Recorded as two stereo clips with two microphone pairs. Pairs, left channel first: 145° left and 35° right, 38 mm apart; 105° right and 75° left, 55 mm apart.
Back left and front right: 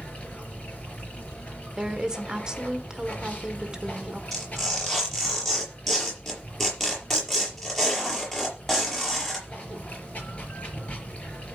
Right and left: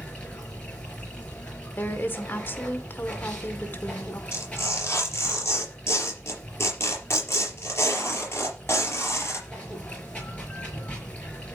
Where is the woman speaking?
100° right, 1.3 m.